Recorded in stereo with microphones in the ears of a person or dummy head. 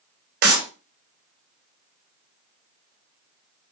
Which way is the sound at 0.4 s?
60° right (ahead or behind).